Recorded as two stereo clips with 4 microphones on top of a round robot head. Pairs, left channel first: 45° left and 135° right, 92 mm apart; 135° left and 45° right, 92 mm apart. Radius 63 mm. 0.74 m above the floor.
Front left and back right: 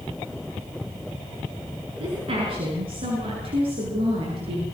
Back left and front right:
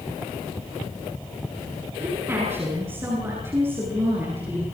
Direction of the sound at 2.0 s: 110° right.